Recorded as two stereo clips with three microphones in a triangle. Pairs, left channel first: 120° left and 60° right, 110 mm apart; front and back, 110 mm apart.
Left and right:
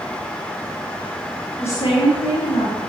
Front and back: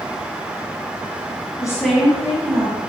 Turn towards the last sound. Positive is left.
turn(degrees=135)